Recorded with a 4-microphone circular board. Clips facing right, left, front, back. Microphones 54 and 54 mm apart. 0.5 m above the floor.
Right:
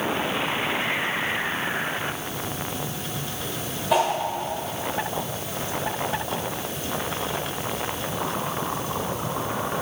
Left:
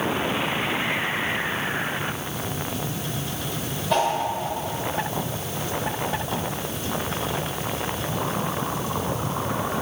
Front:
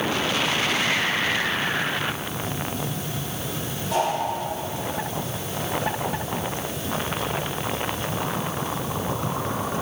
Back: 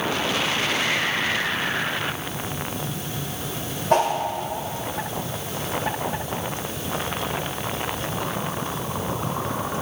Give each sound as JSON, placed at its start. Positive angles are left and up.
{"t": 3.9, "sound": "a whoosh", "azimuth_deg": -170, "distance_m": 2.0}